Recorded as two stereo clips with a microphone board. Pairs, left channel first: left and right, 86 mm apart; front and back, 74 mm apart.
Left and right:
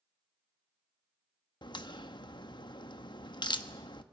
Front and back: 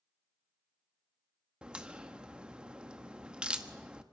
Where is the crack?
105° left, 1.1 m.